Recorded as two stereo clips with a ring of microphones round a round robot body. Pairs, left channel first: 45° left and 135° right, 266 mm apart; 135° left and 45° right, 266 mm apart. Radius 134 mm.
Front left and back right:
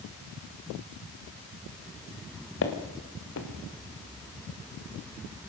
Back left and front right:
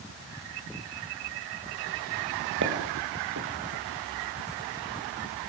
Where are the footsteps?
Straight ahead, 2.5 m.